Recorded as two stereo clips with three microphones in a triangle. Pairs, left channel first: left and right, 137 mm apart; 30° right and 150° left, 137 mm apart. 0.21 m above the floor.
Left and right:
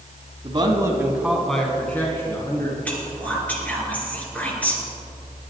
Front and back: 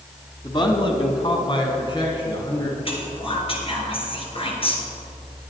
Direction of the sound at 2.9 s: 10° left.